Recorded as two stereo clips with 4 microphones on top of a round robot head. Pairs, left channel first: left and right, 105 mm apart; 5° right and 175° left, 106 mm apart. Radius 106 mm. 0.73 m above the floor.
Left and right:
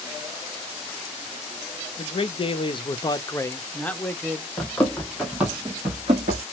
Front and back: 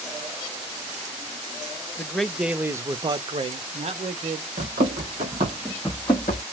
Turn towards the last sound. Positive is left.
turn(degrees=-45)